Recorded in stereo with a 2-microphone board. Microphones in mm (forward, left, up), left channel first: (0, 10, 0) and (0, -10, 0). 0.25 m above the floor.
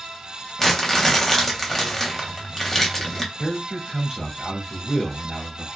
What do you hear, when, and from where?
0.6 s crumpling: 20° left (ahead or behind), 0.9 m
3.4 s a man speaking: 20° right (ahead or behind), 1.3 m